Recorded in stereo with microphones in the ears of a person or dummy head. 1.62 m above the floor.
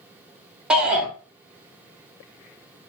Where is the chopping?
I don't hear chopping.